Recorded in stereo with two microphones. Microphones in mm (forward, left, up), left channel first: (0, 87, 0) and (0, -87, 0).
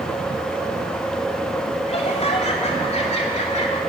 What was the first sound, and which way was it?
Laughter, 40° left (ahead or behind).